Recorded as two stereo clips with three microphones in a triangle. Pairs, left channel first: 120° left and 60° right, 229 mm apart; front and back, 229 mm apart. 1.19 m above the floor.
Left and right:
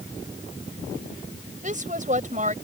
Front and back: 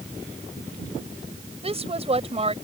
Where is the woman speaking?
115° right.